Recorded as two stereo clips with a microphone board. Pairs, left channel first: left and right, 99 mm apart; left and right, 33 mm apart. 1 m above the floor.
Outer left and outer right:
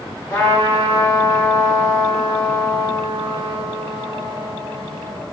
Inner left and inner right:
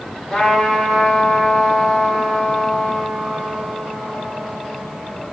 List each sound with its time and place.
0.3 s a trumpet: 30° left (ahead or behind), 1.4 m